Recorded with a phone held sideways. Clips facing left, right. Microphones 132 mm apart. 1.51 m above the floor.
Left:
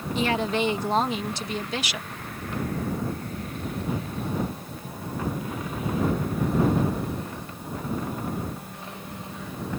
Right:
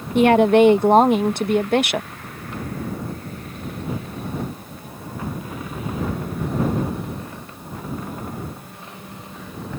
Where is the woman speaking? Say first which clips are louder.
Right 13 dB; 65° right (ahead or behind).